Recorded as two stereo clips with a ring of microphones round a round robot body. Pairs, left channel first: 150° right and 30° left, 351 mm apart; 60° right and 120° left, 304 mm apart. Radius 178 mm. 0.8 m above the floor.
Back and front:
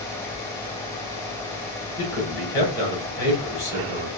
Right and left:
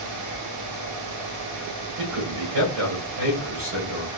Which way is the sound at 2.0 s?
150° left.